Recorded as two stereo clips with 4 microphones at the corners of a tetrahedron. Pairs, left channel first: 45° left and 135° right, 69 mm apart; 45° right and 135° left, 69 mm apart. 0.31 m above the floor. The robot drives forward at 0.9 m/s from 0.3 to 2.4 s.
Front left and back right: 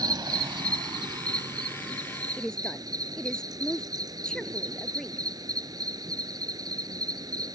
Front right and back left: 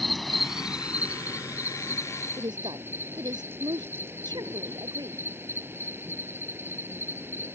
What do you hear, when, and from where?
0.0 s an insect: 135° right; by 7.5 s 165° right
2.4 s a woman speaking: 125° left